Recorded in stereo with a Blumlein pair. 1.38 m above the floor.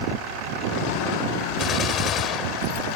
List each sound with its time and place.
1.6 s a gunshot: 30° left